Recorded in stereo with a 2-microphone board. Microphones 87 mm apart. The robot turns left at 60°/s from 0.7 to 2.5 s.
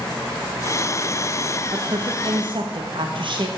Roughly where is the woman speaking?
Ahead right.